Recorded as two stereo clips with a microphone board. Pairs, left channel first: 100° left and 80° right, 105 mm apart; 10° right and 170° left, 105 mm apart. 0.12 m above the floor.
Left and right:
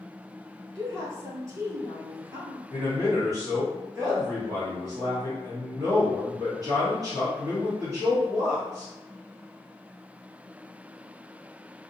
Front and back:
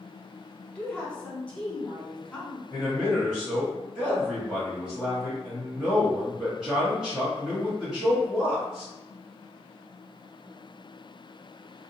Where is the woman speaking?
80° right, 1.2 m.